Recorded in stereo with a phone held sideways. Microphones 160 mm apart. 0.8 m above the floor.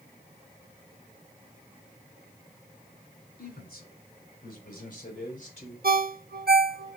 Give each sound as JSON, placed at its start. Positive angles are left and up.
{"t": 3.4, "sound": "a man speaking", "side_deg": 70, "distance_m": 3.0}
{"t": 5.8, "sound": "a ringtone", "side_deg": -75, "distance_m": 0.8}